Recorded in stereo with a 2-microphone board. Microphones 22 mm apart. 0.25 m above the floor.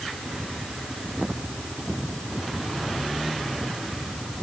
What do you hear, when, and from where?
Only background noise.